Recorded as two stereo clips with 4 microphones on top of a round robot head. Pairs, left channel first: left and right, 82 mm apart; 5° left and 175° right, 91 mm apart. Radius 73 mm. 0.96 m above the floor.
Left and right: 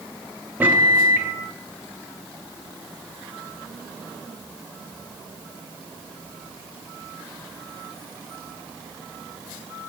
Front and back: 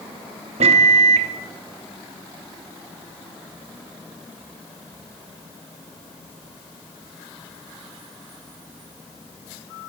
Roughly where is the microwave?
Behind.